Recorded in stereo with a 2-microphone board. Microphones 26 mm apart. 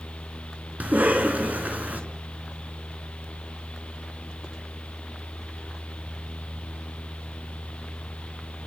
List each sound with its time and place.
0.8 s a cough: 80° right, 4 m